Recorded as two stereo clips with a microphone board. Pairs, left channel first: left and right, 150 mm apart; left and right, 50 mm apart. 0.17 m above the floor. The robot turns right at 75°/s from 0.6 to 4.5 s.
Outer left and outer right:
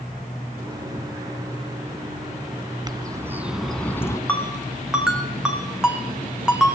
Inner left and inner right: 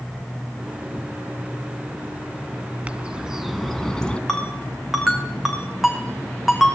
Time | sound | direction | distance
2.9 | a bird | 60° right | 1.9 m
4.3 | a ringtone | 10° left (ahead or behind) | 5.5 m